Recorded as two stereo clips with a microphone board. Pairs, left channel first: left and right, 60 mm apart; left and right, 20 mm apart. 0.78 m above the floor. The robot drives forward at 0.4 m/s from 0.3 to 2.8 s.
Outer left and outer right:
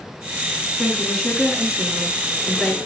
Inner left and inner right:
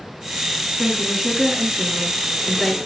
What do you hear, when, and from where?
0.8 s a woman speaking: 5° left (ahead or behind), 6.5 m